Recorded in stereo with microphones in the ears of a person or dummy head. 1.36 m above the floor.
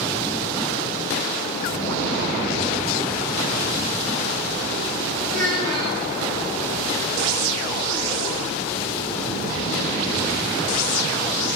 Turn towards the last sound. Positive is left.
turn(degrees=-45)  # may be behind; listen again after turning